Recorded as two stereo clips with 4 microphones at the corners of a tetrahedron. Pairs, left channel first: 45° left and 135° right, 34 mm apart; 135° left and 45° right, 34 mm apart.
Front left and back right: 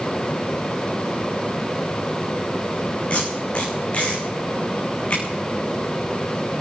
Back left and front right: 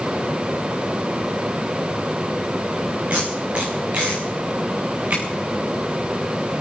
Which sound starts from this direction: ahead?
Tape being pulled, at 3.1 s.